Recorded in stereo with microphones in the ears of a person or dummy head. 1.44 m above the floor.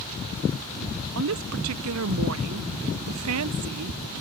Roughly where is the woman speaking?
Right.